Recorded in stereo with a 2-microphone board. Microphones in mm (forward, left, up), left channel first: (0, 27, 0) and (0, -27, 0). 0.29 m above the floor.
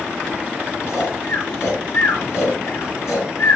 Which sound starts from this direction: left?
Snoring, at 0.9 s.